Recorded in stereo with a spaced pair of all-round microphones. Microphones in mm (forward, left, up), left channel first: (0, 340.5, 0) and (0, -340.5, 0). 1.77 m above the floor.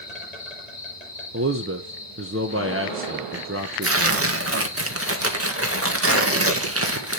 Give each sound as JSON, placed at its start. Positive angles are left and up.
{"t": 0.0, "sound": "an insect", "side_deg": 70, "distance_m": 6.5}
{"t": 1.3, "sound": "a man speaking", "side_deg": -20, "distance_m": 1.2}
{"t": 3.8, "sound": "tearing paper", "side_deg": -20, "distance_m": 1.6}